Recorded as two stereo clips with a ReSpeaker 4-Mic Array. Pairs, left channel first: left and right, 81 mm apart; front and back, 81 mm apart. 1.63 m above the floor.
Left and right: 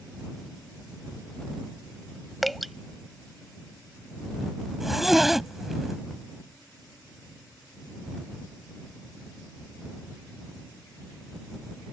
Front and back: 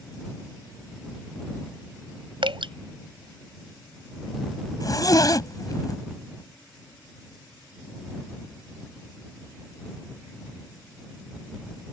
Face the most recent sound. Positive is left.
turn(degrees=-5)